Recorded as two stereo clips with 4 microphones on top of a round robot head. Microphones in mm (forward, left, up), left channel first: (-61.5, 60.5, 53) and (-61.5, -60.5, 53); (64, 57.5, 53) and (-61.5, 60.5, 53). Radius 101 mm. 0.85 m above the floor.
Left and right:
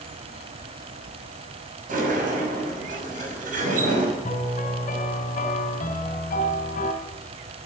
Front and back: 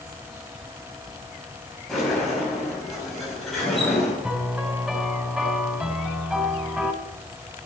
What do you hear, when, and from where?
1.9 s a sliding door: 90° right, 5.5 m
4.2 s a piano: 95° left, 4 m